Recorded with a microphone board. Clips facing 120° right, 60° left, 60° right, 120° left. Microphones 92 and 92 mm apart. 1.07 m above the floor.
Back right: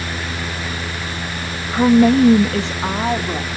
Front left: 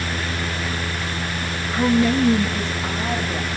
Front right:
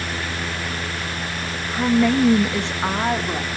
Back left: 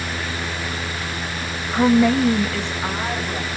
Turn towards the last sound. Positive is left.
turn(degrees=-120)